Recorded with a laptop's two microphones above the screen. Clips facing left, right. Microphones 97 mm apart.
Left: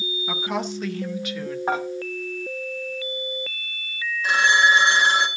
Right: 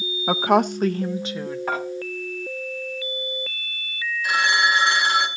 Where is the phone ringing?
30° left (ahead or behind), 2.5 m.